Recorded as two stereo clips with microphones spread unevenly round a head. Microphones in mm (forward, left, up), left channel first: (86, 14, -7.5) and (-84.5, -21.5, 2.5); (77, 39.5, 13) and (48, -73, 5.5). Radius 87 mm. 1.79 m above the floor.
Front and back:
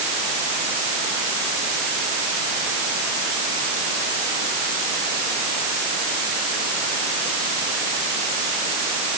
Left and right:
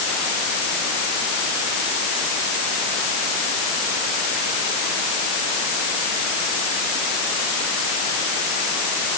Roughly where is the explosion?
I don't hear an explosion.